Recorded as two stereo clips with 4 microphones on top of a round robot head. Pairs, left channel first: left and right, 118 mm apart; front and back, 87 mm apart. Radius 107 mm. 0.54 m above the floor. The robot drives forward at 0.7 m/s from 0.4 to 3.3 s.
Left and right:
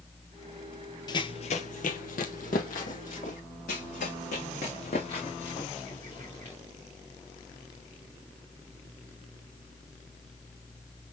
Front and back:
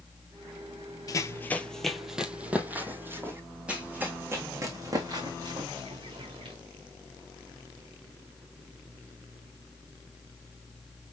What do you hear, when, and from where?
1.1 s running footsteps: 40° left, 0.8 m; by 3.4 s 115° left, 2.0 m
3.7 s running footsteps: 105° left, 1.9 m; by 6.5 s 165° left, 2.5 m